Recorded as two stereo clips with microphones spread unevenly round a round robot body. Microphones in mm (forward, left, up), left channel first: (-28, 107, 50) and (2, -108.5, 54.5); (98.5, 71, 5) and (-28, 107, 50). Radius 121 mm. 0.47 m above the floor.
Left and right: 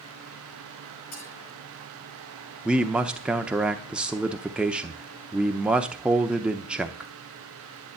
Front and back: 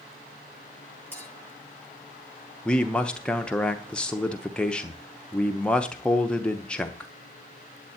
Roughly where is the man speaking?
Ahead.